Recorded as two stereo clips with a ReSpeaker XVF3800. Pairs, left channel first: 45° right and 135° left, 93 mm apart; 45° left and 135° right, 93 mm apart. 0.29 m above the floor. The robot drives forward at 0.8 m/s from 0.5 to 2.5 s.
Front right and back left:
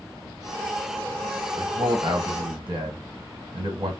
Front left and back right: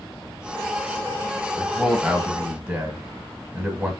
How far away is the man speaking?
About 1.5 m.